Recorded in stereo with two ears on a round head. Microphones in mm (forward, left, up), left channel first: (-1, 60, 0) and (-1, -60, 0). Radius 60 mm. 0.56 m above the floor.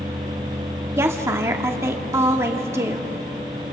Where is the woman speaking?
20° right (ahead or behind), 1.4 m.